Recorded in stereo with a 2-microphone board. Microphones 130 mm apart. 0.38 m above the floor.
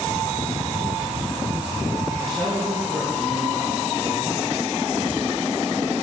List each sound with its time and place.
2.2 s a man speaking: 5° left (ahead or behind), 5.5 m; by 4.4 s 15° left (ahead or behind), 5 m